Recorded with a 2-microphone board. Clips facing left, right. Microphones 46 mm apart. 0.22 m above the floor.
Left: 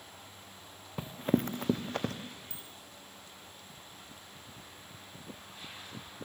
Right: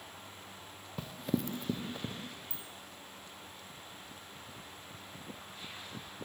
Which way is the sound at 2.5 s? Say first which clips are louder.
Right 1 dB; 65° left (ahead or behind).